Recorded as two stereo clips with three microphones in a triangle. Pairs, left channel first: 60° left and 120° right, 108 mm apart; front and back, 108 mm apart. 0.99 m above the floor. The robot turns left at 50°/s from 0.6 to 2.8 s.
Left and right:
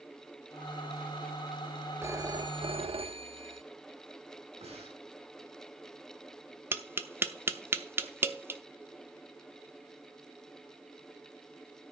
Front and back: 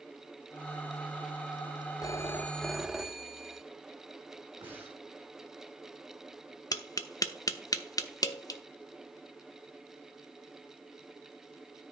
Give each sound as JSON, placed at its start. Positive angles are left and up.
{"t": 2.0, "sound": "a phone ringing", "azimuth_deg": -55, "distance_m": 0.8}
{"t": 4.6, "sound": "breathing", "azimuth_deg": -110, "distance_m": 4.5}
{"t": 6.7, "sound": "tapping", "azimuth_deg": -55, "distance_m": 0.9}